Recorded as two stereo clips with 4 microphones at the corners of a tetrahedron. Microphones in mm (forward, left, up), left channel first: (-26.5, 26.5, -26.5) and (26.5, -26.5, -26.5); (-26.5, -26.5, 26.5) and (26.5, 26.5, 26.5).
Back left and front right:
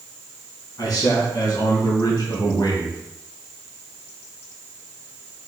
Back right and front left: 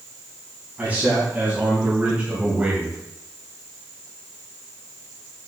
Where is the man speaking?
115° left, 3 m; by 3.0 s 120° left, 2 m.